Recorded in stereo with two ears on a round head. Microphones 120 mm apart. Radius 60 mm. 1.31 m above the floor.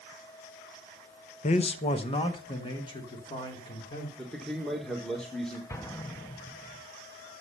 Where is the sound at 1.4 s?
50° left (ahead or behind), 0.8 m; by 4.1 s 30° left (ahead or behind), 3.5 m.